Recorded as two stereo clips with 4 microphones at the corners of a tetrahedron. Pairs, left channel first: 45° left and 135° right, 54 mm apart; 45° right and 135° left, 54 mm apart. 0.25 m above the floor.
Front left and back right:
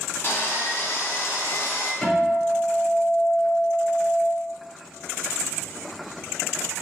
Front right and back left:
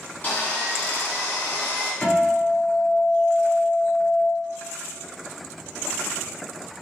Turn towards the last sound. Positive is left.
turn(degrees=5)